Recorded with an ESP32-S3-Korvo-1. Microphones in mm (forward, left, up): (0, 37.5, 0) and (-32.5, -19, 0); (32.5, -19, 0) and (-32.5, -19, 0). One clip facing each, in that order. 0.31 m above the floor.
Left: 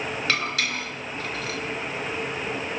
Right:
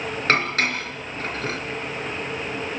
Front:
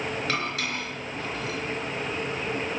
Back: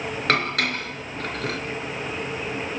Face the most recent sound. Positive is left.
turn(degrees=-165)